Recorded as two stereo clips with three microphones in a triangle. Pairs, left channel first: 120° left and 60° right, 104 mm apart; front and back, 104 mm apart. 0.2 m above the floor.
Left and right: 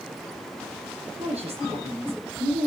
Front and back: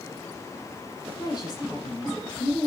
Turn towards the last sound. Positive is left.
turn(degrees=-50)